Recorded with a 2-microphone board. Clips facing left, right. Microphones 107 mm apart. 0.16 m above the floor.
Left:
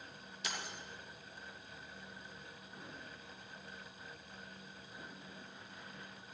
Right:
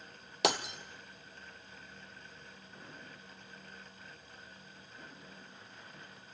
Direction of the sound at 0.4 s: 80° right.